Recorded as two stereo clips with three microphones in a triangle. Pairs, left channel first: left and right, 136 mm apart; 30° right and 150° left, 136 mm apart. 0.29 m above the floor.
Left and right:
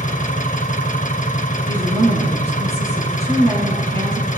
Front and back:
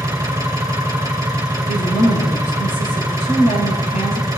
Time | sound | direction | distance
0.0 | an engine running | 85° left | 2 m
1.7 | a woman speaking | 50° right | 5.5 m